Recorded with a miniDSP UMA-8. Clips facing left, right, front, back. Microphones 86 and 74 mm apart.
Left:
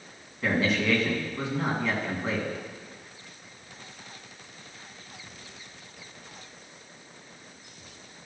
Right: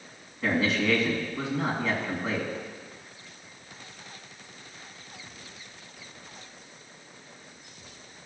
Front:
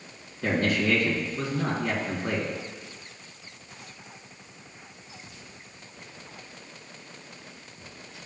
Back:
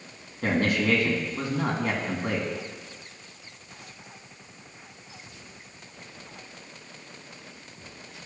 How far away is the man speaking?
About 2.5 m.